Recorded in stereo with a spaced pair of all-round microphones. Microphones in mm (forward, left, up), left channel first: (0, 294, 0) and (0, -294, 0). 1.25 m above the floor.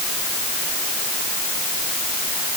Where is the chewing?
I don't hear chewing.